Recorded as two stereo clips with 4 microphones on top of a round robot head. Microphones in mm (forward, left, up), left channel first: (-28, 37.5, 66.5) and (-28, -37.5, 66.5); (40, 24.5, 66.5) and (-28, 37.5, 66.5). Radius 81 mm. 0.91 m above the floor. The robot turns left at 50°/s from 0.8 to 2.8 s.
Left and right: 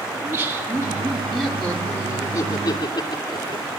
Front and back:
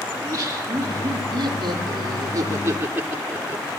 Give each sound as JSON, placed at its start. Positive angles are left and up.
{"t": 0.1, "sound": "laughter", "azimuth_deg": -150, "distance_m": 2.5}